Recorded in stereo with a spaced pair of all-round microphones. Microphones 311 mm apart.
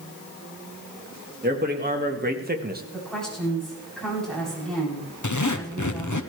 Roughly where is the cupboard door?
No cupboard door in this recording.